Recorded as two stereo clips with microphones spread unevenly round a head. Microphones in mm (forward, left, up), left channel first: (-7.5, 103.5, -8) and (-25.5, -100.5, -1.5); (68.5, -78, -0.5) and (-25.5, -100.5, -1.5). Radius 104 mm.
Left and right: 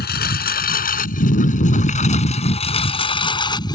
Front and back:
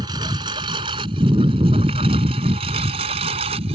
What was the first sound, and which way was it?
A lawn mower, 125° left.